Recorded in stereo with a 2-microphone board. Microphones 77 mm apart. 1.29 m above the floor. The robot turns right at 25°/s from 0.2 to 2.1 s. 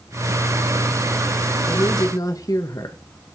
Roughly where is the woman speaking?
Left.